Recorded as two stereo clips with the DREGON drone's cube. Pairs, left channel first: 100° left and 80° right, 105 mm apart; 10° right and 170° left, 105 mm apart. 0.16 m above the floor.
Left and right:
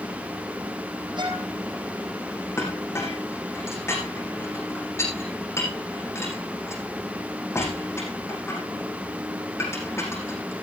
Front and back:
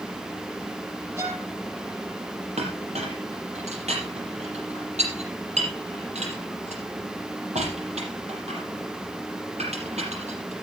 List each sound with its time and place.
1.2 s a violin: 125° right, 4.5 m
2.6 s a clink: 165° left, 5 m